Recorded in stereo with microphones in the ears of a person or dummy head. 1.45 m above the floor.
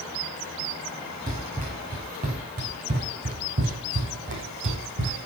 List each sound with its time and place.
1.3 s running footsteps: 45° right (ahead or behind), 5 m; by 5.2 s 65° right (ahead or behind), 3.5 m